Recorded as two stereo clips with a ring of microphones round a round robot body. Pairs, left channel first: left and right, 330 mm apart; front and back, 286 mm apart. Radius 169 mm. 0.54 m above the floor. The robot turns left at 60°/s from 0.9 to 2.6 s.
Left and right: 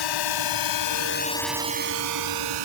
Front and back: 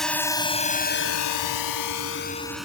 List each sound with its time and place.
0.0 s a drone: 90° left; by 2.6 s 90° right